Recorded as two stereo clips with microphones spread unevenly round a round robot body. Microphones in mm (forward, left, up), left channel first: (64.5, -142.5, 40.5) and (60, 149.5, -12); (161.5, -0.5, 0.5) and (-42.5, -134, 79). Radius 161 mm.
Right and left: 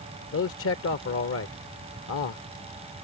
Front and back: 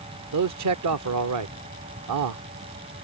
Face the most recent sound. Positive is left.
turn(degrees=-140)